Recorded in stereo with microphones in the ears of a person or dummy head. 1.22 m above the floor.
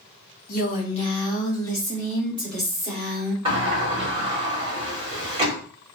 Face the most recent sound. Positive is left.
turn(degrees=-30)  # may be behind; listen again after turning